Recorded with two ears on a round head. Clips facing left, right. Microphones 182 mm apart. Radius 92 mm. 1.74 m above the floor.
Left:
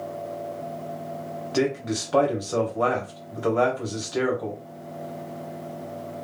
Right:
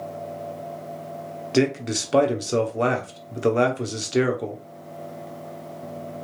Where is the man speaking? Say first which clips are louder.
Right 3 dB; 25° right (ahead or behind), 1.2 m.